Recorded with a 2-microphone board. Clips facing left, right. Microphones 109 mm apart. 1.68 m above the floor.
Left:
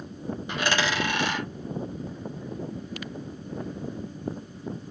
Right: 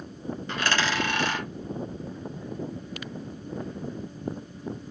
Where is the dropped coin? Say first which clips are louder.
Left 1 dB; 15° left (ahead or behind), 2 m.